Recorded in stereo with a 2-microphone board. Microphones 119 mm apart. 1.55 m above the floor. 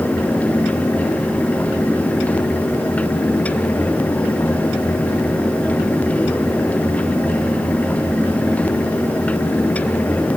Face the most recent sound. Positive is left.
No sound to turn to.